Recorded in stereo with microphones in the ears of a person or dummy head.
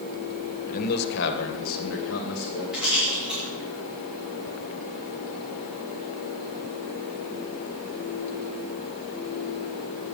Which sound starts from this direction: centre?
A rattle, at 2.7 s.